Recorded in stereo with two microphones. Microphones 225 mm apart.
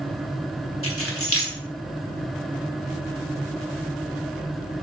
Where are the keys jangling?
70° left (ahead or behind), 2 m.